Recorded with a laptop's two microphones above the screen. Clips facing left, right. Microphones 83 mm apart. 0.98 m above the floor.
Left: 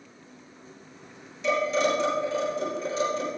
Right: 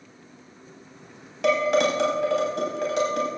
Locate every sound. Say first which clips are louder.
1.4 s dishes clattering: right 4 dB; 85° right, 4 m